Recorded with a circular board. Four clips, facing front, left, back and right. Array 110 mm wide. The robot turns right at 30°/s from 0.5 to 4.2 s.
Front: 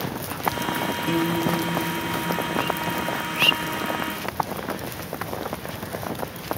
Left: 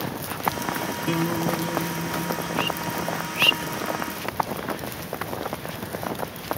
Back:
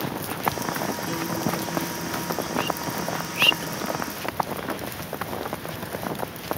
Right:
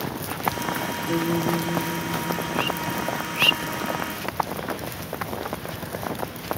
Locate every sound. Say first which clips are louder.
1.1 s a guitar: right 1 dB, front 5 dB; 55° left, 5 m; by 3.9 s 140° left, 5 m